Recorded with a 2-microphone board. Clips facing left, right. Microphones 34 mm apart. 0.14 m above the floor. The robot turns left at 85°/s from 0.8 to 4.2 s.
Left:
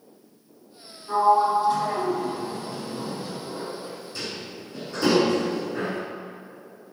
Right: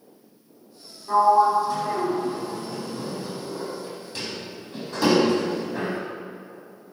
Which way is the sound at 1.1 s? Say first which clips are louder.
Right 2 dB; 30° right (ahead or behind).